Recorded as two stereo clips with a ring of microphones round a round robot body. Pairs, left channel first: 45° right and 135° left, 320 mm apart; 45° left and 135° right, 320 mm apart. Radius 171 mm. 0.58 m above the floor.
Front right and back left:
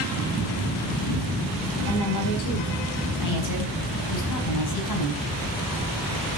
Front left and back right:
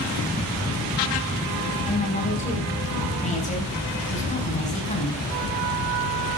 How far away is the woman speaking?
About 4.5 m.